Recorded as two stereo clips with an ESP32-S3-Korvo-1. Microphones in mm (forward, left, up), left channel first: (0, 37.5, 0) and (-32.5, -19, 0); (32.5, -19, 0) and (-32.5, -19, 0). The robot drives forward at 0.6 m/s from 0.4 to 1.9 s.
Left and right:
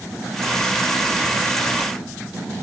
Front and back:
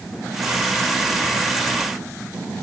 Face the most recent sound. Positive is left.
No sound to turn to.